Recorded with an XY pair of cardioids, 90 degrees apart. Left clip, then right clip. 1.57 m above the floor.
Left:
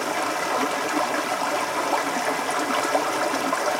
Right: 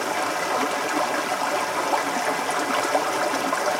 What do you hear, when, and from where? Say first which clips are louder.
0.0 s running water: even; 10° right, 0.8 m